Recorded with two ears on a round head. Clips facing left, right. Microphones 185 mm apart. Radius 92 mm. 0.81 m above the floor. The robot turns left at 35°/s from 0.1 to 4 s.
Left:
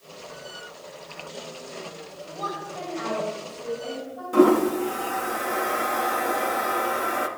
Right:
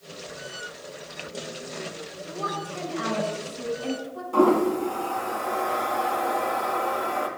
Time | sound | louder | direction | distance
2.3 | a woman speaking | right 1 dB | 30° right | 6.5 m
4.3 | a toilet flushing | left 2 dB | 20° left (ahead or behind) | 1.3 m